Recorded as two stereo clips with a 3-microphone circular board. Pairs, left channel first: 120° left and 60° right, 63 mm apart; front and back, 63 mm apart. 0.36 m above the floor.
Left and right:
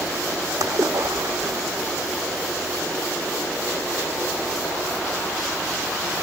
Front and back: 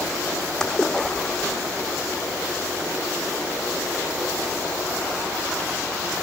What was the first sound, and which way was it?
A splash, 80° right.